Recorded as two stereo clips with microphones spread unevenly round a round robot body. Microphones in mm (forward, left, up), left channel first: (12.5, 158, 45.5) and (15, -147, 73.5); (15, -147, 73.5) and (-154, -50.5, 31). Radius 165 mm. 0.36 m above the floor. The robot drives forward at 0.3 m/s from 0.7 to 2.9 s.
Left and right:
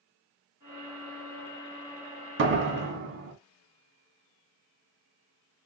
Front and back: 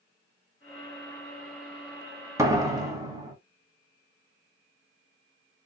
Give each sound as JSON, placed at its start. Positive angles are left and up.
{"t": 2.4, "sound": "a door slam", "azimuth_deg": -145, "distance_m": 1.7}